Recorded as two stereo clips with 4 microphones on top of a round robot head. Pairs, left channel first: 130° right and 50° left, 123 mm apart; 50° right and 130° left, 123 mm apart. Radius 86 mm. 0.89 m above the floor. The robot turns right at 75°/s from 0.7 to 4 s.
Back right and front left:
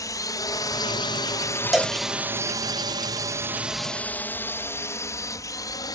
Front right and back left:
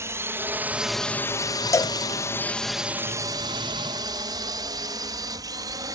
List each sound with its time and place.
0.0 s a drone: 175° right; by 6.0 s straight behind
1.7 s a cowbell: 35° right; by 2.0 s 15° right